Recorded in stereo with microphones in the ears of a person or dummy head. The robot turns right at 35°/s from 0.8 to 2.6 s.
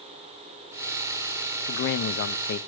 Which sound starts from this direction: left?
A man speaking, at 1.7 s.